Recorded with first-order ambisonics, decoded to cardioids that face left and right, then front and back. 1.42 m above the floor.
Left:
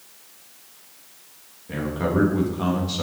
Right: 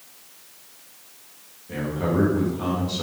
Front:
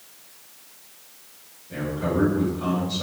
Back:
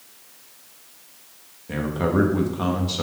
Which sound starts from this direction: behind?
A man speaking, at 1.7 s.